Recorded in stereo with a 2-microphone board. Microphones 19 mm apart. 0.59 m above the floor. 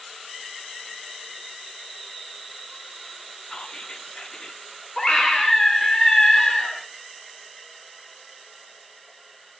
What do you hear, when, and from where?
3.5 s whispering: 50° left (ahead or behind), 0.9 m
5.0 s a scream: 25° left (ahead or behind), 1.5 m